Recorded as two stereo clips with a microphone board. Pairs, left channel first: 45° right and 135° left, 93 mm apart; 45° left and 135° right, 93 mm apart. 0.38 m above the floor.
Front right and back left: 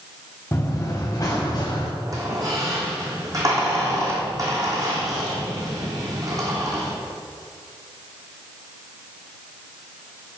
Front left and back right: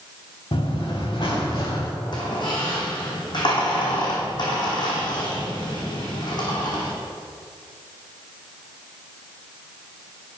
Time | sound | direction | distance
0.5 | running footsteps | 20° left | 1.7 m
2.1 | a squeak | 85° left | 3 m